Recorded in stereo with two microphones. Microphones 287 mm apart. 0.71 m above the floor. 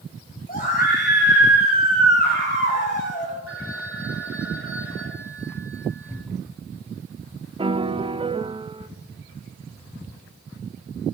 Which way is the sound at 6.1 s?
5° left (ahead or behind).